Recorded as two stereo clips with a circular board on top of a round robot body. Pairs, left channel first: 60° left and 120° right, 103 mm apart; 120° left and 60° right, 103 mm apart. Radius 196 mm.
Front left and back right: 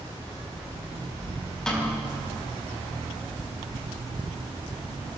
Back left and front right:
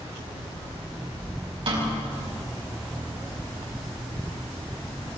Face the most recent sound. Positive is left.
turn(degrees=-25)